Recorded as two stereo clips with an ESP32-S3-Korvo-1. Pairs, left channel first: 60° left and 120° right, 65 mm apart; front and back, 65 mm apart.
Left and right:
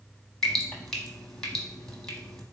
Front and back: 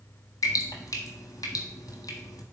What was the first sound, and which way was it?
Dripping, 20° right.